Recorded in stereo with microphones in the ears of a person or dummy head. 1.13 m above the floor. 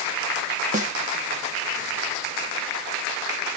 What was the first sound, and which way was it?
A snare drum, 35° right (ahead or behind).